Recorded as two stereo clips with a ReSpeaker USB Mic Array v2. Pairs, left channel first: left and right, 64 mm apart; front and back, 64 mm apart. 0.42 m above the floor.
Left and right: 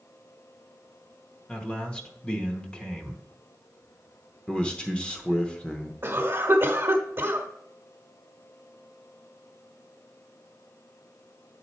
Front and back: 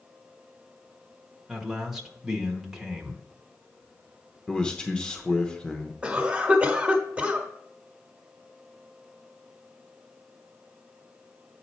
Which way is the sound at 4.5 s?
50° left.